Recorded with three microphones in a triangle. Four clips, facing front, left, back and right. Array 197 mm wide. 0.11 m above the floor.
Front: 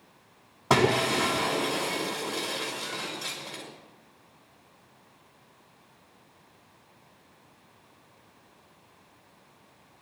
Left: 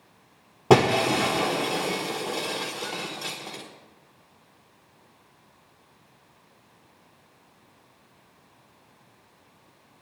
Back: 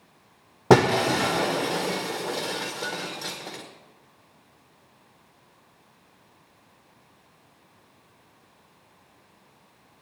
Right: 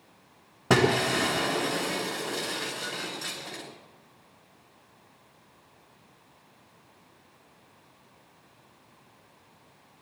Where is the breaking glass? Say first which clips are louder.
Left 5 dB, back 5 dB; 160° left, 4.5 m.